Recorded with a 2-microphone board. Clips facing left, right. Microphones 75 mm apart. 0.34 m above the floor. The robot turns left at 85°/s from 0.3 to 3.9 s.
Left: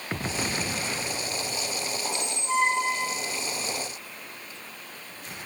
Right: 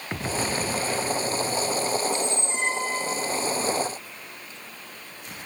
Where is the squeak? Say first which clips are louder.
Right 3 dB; 170° left, 1.0 m; by 3.2 s 70° left, 1.0 m.